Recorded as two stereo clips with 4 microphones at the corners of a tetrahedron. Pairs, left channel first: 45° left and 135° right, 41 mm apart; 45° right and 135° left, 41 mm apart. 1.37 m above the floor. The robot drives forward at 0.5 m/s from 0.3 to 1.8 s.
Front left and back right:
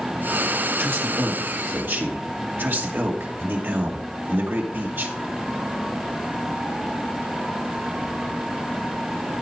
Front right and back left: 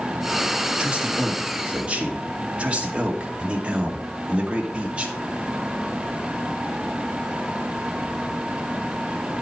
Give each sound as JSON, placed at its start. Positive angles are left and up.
{"t": 0.8, "sound": "a man speaking", "azimuth_deg": -160, "distance_m": 2.0}